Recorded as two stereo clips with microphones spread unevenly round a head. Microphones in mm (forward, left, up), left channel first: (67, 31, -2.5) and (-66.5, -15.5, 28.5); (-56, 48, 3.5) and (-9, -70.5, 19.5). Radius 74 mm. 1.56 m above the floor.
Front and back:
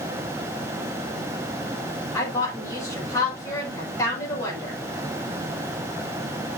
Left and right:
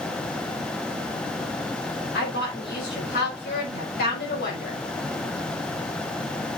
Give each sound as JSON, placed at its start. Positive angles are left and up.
{"t": 2.1, "sound": "a woman speaking", "azimuth_deg": 90, "distance_m": 5.5}